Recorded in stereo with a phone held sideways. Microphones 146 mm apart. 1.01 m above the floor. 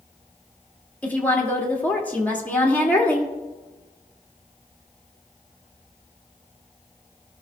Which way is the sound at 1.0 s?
10° left (ahead or behind).